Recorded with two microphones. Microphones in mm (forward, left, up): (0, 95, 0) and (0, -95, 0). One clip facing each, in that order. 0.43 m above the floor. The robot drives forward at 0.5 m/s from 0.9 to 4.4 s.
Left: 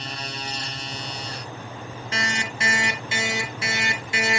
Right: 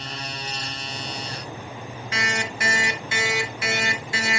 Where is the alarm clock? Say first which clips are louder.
Right 1 dB; 30° left (ahead or behind), 3.5 m; by 4.4 s 20° left (ahead or behind), 4.5 m.